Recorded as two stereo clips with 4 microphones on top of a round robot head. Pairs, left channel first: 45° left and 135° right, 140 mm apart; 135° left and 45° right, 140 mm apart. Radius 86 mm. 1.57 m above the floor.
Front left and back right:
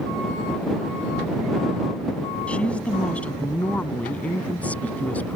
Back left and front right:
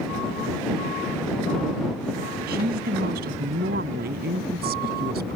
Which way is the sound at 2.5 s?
35° right.